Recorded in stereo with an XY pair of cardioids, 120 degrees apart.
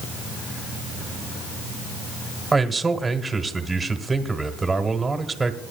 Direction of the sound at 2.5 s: 15° right.